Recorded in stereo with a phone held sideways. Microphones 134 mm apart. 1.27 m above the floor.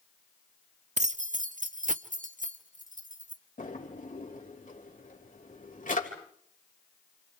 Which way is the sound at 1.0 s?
60° right (ahead or behind).